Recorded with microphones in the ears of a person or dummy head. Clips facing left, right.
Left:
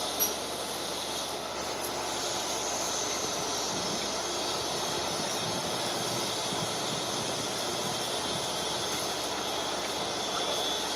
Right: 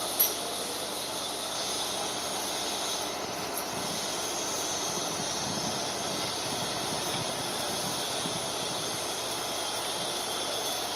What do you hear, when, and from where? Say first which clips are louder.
0.2 s cutlery clinking: left 1 dB; 30° right (ahead or behind), 1.0 m